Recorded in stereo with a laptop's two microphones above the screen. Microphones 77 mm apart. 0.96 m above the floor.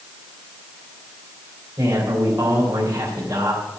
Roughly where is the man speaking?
Right.